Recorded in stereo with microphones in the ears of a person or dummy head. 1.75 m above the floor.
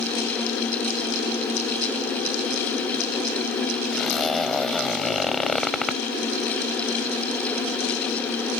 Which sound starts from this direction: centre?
A zipper, at 3.9 s.